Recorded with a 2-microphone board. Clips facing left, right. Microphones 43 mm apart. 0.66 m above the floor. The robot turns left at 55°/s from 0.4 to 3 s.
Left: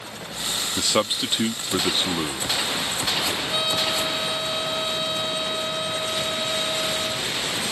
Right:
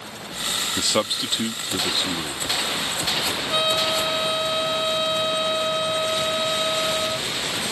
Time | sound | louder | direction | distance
0.8 | a man speaking | left 2 dB | centre (ahead or behind) | ?
3.5 | a trumpet | right 5 dB | 20° right (ahead or behind) | ?